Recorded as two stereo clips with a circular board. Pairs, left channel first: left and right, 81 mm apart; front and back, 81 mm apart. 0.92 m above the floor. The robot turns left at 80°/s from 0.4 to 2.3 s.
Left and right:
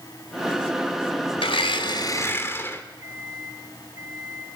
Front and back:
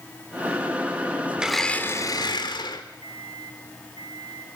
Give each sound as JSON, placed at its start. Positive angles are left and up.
{"t": 1.4, "sound": "a blender", "azimuth_deg": 100, "distance_m": 1.7}
{"t": 3.0, "sound": "a microwave", "azimuth_deg": -145, "distance_m": 4.5}